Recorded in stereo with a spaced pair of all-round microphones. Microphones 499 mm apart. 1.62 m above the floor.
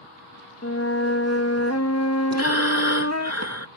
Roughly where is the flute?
Left.